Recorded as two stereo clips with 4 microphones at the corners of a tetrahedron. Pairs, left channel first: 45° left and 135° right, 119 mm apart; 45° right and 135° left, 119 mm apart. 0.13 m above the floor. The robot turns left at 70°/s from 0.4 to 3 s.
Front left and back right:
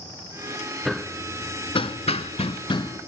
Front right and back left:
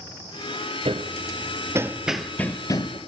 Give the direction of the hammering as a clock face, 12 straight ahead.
7 o'clock.